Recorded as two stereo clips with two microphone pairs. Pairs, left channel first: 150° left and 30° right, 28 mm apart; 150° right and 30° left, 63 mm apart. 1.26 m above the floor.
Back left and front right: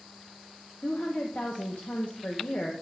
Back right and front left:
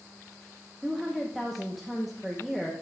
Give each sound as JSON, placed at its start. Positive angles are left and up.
{"t": 0.8, "sound": "a woman speaking", "azimuth_deg": 120, "distance_m": 0.9}